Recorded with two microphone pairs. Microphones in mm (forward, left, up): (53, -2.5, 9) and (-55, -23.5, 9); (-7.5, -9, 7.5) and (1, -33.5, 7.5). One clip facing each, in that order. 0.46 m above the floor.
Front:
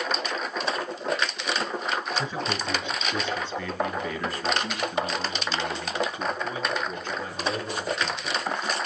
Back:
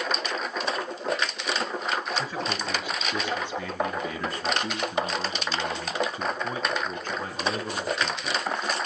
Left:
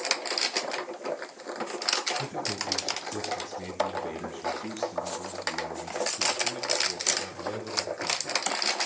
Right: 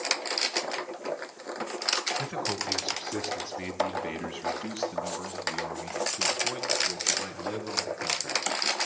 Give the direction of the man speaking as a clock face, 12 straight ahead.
3 o'clock.